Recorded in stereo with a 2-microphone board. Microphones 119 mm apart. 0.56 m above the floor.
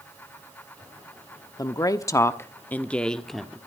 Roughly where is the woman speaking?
Left.